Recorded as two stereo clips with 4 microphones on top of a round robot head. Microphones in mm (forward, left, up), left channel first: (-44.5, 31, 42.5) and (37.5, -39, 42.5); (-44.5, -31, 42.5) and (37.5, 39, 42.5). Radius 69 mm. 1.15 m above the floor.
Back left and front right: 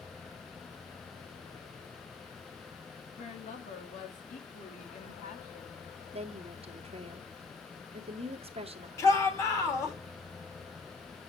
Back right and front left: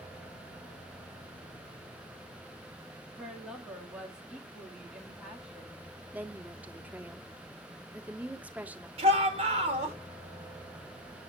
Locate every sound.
3.2 s a woman speaking: 120° left, 1.9 m
6.1 s a woman speaking: 35° right, 1.1 m
9.0 s a shout: 75° left, 3 m